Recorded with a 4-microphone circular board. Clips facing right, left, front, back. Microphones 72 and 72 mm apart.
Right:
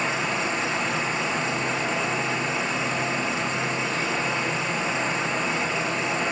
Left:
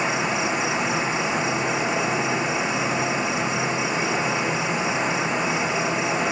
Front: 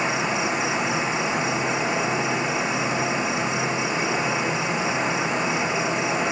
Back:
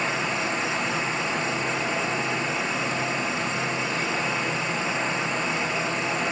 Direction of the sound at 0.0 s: 40° left.